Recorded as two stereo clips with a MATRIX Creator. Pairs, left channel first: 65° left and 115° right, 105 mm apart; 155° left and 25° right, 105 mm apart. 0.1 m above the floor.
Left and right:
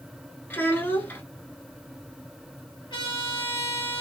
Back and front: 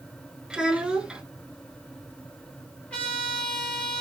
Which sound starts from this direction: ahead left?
A child speaking, at 0.5 s.